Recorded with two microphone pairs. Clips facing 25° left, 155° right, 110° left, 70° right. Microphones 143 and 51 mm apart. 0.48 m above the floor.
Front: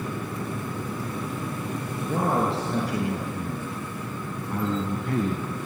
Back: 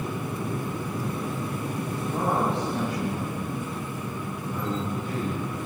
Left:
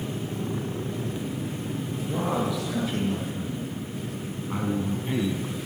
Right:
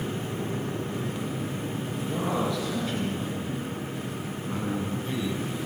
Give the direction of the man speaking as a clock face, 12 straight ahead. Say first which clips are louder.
Front 2 dB, left 1 dB; 11 o'clock.